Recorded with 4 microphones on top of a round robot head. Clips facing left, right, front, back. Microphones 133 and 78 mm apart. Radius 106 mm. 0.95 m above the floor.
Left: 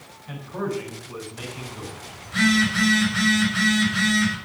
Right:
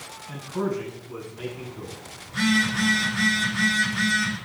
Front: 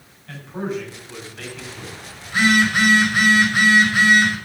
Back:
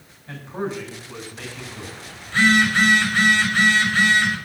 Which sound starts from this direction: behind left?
A man speaking, at 0.3 s.